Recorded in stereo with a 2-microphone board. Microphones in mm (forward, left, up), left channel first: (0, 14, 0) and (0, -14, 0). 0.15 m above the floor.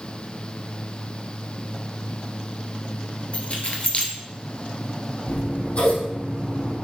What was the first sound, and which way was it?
Keys jangling, 50° left (ahead or behind).